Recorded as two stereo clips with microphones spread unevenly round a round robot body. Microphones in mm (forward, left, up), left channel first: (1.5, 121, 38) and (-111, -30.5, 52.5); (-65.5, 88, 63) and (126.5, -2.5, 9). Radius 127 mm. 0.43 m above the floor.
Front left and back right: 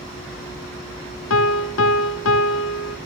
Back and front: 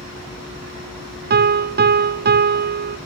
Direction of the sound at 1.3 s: 20° left.